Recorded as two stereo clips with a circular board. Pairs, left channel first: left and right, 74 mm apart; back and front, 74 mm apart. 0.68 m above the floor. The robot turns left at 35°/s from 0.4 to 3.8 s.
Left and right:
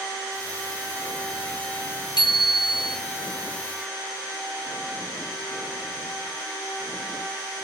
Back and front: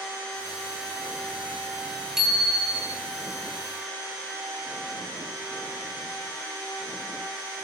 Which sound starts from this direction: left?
A bicycle bell, at 2.2 s.